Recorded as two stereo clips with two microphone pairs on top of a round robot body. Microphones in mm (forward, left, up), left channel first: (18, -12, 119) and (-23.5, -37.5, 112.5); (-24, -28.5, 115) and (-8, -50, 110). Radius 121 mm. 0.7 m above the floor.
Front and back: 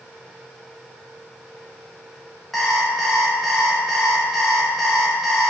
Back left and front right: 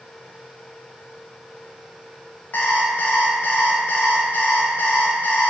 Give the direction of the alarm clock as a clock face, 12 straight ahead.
8 o'clock.